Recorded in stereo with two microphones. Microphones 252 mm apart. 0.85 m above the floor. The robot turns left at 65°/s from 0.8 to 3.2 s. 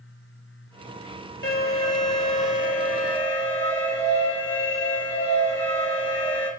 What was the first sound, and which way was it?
An alarm, 135° left.